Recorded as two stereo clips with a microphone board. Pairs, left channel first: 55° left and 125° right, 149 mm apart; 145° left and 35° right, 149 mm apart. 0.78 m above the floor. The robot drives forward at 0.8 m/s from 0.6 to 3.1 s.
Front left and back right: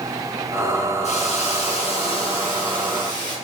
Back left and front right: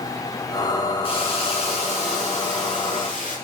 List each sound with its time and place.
1.0 s a hiss: 95° left, 4.5 m; by 3.4 s 115° left, 4.5 m